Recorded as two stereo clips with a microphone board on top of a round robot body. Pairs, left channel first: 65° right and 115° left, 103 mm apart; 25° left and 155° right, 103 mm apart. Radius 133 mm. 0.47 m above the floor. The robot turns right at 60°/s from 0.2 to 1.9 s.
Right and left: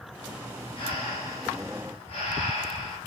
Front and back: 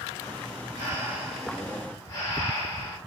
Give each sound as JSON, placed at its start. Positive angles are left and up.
{"t": 0.8, "sound": "breathing", "azimuth_deg": -105, "distance_m": 2.0}